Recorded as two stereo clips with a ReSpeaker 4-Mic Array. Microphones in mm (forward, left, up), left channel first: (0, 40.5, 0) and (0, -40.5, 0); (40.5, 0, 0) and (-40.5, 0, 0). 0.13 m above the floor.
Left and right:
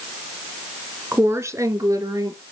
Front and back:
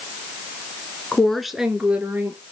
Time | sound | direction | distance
1.1 | a woman speaking | 65° right | 1.3 m